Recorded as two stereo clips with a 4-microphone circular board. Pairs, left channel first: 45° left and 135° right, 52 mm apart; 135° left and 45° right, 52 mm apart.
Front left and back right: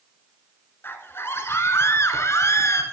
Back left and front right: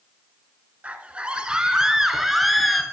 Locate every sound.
0.8 s a scream: 15° left, 1.8 m; by 2.8 s 50° left, 2 m